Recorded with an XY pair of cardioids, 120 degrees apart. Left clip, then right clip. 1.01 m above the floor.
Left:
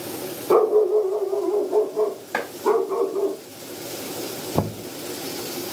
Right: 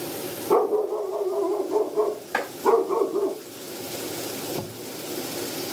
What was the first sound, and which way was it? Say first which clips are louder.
A dog barking: left 5 dB; 30° left.